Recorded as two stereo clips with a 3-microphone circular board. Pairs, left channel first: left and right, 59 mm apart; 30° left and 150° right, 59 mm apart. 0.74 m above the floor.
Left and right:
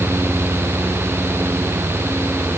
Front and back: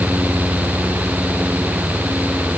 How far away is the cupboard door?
I don't hear a cupboard door.